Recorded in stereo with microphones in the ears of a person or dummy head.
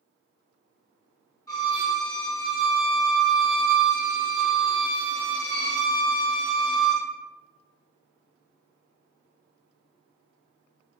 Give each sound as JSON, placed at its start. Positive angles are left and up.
{"t": 1.5, "sound": "a violin", "side_deg": 20, "distance_m": 1.1}